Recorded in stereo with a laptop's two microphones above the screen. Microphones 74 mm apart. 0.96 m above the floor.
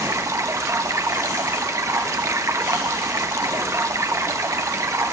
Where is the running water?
40° right (ahead or behind), 0.7 m.